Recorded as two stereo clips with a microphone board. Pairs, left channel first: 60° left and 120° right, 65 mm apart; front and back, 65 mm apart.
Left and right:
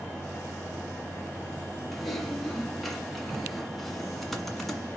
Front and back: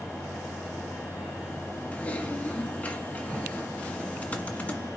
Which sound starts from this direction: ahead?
Typing on a keyboard, at 1.9 s.